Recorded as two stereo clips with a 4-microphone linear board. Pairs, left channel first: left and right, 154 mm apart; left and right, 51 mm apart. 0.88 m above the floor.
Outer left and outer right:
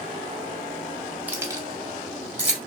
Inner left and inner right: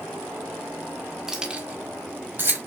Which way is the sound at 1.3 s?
10° right (ahead or behind).